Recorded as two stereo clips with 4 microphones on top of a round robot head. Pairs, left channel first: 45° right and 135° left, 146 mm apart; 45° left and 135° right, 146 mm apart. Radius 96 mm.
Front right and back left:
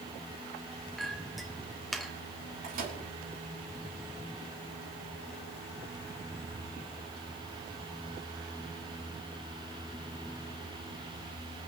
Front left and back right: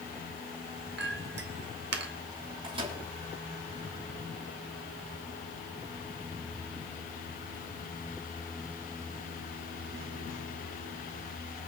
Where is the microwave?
170° left, 5.5 m.